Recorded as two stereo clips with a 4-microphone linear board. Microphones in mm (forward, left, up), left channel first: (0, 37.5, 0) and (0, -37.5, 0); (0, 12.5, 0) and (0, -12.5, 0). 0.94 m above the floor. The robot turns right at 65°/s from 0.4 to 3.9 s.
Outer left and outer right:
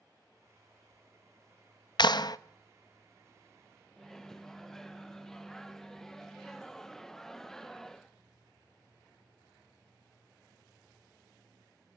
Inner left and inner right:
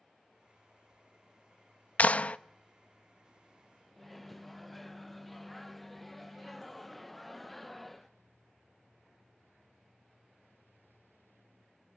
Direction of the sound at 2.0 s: 80° left.